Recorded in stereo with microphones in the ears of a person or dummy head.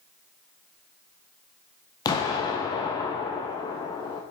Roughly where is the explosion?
Centre.